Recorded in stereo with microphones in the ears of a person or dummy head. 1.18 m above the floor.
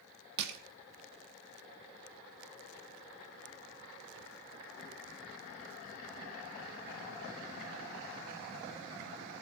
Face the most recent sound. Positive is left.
turn(degrees=-60)  # may be behind; listen again after turning